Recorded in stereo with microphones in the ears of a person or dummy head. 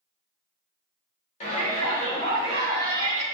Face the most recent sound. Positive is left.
turn(degrees=20)  # may be behind; listen again after turning